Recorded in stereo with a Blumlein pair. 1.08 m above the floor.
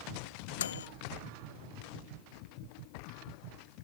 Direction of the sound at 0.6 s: 65° left.